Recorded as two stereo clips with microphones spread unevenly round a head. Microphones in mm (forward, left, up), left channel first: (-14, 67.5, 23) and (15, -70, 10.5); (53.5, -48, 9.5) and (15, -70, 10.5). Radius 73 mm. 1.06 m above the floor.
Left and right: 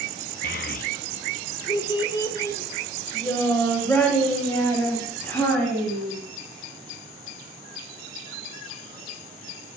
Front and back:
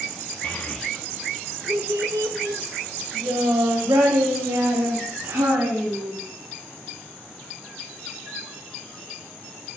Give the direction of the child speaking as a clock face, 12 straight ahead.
9 o'clock.